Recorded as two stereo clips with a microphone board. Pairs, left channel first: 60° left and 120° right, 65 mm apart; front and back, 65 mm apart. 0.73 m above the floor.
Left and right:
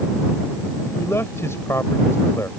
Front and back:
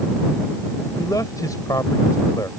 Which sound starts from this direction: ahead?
A man speaking, at 1.0 s.